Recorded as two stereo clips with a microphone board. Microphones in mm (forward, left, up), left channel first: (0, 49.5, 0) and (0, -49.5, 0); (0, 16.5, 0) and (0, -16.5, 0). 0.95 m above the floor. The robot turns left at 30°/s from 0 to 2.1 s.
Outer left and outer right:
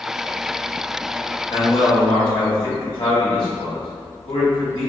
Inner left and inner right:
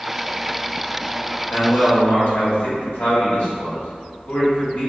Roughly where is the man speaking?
Left.